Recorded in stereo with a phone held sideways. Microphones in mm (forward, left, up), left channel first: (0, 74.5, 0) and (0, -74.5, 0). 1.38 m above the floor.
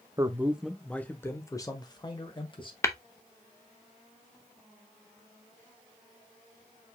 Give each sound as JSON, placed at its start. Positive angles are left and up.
{"t": 0.2, "sound": "a man speaking", "side_deg": -25, "distance_m": 0.7}
{"t": 2.8, "sound": "tapping", "side_deg": 20, "distance_m": 0.6}